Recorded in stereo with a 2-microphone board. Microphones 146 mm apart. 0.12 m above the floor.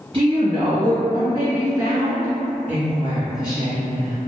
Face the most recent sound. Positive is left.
turn(degrees=35)  # may be behind; listen again after turning